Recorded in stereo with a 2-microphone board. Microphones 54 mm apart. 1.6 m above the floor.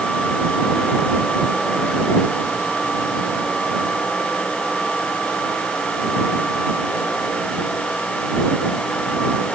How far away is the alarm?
No alarm in this recording.